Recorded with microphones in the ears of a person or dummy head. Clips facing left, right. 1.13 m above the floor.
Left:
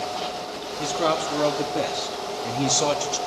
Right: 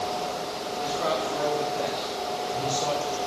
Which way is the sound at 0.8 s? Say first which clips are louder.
Left 4 dB; 50° left (ahead or behind).